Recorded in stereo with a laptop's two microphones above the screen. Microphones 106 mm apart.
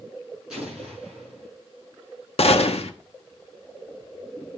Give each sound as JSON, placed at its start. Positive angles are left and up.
{"t": 0.5, "sound": "an explosion", "side_deg": -5, "distance_m": 6.0}
{"t": 2.4, "sound": "a gunshot", "side_deg": 75, "distance_m": 0.8}